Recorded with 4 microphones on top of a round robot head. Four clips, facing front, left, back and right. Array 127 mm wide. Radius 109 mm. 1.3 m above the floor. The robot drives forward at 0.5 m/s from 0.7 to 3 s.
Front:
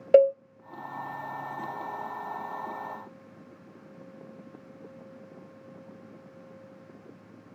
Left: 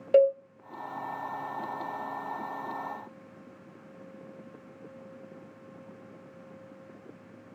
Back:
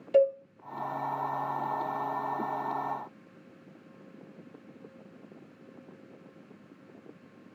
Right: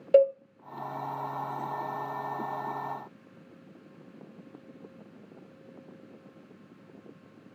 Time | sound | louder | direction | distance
0.1 | a cowbell | even, front 5 dB | straight ahead | 0.7 m